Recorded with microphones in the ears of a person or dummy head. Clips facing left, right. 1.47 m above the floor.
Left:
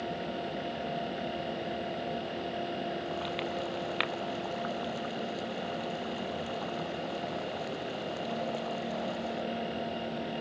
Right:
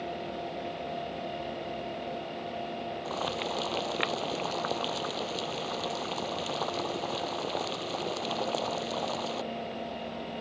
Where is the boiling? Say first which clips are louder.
Right 1 dB; 70° right (ahead or behind).